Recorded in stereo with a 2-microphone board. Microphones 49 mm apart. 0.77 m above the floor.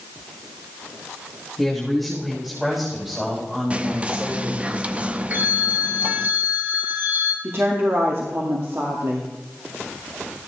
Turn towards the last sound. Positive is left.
turn(degrees=-50)  # may be behind; listen again after turning